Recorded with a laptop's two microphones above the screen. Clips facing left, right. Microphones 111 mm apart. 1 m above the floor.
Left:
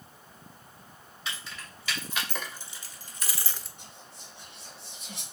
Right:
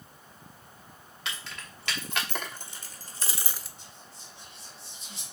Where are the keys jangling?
65° right (ahead or behind), 1.9 m; by 3.7 s centre (ahead or behind), 0.6 m.